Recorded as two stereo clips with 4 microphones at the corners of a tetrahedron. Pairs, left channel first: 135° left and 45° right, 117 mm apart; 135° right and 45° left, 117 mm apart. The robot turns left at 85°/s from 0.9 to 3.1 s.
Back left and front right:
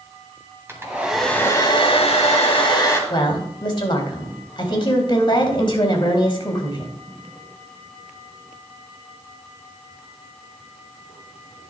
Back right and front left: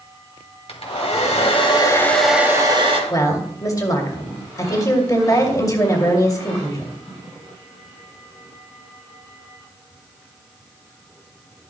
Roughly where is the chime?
No chime in this recording.